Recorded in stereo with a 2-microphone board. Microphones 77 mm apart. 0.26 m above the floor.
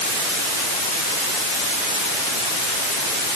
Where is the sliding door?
I don't hear a sliding door.